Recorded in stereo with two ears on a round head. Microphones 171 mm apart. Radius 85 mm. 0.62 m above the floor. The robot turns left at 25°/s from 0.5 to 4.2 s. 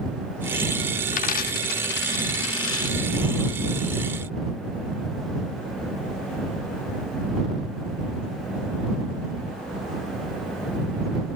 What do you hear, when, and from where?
1.1 s a dropped coin: 45° left (ahead or behind); by 3.0 s 80° left